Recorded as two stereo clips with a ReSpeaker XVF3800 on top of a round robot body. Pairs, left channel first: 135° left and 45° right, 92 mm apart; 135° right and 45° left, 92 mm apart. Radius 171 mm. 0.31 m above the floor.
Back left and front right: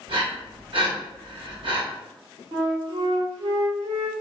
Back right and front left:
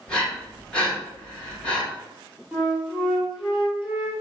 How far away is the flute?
About 2 m.